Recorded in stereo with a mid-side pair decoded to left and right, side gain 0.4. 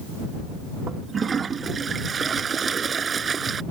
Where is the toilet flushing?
45° right.